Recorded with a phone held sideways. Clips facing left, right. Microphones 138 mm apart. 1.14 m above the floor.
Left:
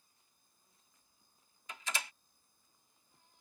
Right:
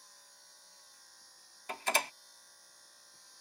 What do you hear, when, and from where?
0.0 s a machine running: 85° right
1.7 s a door slam: 60° right (ahead or behind)